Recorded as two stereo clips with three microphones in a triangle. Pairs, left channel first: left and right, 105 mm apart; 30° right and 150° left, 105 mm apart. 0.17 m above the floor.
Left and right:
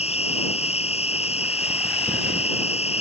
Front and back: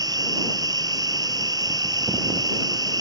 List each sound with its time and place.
0.0 s an insect: 95° left